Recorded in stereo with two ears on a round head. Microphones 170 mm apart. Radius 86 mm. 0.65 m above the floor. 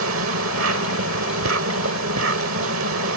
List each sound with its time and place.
0.0 s an insect: 80° right